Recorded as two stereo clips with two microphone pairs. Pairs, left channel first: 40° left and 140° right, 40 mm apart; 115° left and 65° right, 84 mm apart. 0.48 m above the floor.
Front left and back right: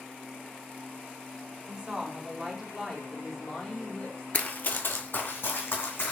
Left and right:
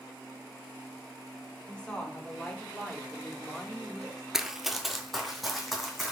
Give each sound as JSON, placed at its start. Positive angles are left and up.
{"t": 1.7, "sound": "a woman speaking", "azimuth_deg": 180, "distance_m": 1.5}
{"t": 4.3, "sound": "running footsteps", "azimuth_deg": 20, "distance_m": 0.5}